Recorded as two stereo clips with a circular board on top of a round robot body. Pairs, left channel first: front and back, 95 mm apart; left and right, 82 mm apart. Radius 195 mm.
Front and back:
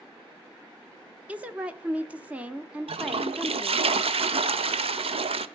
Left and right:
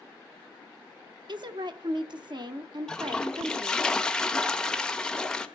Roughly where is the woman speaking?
Right.